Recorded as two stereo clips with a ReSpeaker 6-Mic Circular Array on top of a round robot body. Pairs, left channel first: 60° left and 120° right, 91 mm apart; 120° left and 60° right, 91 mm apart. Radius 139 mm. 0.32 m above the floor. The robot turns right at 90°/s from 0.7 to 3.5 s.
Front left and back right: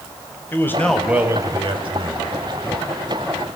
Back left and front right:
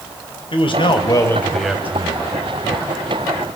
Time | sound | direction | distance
0.5 | a man speaking | 125° left | 3 m